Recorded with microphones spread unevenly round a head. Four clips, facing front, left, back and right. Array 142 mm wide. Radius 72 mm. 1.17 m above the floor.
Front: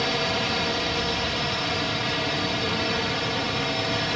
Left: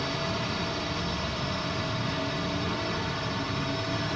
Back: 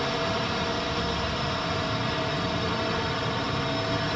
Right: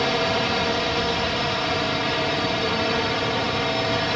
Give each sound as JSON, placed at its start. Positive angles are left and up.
{"t": 0.0, "sound": "a drone", "azimuth_deg": -70}